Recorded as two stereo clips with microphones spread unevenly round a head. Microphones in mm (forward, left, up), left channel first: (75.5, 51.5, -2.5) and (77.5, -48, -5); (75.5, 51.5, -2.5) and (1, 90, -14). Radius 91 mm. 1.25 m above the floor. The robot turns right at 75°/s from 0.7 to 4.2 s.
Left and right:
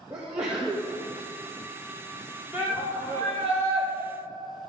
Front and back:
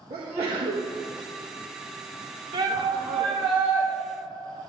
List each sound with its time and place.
0.1 s a sneeze: 170° right, 1.7 m; by 0.9 s 155° right, 1.7 m
2.5 s a shout: 170° right, 3.5 m; by 3.9 s 70° right, 3.5 m